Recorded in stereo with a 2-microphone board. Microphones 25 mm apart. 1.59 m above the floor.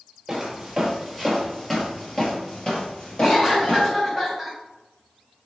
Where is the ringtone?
I don't hear a ringtone.